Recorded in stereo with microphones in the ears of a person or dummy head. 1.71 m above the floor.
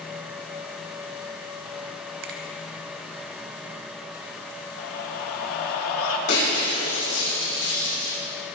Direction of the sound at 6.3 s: 65° left (ahead or behind).